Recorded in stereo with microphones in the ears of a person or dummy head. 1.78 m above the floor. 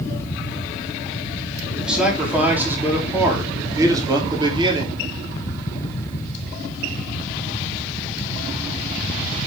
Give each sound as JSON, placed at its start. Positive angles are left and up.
{"t": 1.8, "sound": "a man speaking", "side_deg": -5, "distance_m": 4.5}